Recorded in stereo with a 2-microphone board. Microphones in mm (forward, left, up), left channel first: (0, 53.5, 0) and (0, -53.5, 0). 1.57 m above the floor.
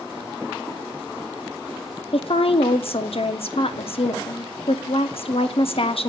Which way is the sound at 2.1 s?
65° left (ahead or behind).